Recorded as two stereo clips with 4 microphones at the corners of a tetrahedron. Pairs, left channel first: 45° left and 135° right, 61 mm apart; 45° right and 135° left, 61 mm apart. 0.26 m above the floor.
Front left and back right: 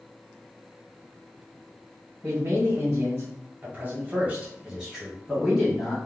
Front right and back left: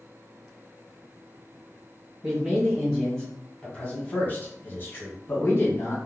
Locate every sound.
2.2 s a man speaking: 155° right, 1.9 m; by 6.0 s 35° right, 2 m